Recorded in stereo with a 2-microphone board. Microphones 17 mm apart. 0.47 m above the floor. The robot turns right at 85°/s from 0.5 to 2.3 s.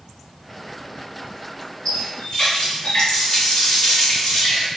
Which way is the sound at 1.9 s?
55° left.